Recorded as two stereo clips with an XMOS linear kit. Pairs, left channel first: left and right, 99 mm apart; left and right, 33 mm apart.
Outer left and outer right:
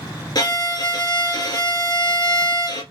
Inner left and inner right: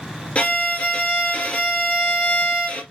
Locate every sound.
0.3 s a violin: 45° left (ahead or behind), 1.9 m